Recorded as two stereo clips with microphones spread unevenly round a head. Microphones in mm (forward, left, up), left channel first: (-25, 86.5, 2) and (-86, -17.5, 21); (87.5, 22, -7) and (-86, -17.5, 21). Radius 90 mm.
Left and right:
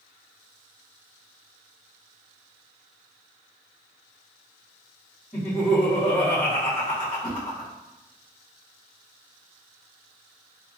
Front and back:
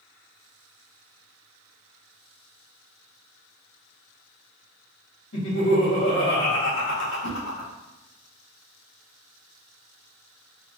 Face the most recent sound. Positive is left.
turn(degrees=-5)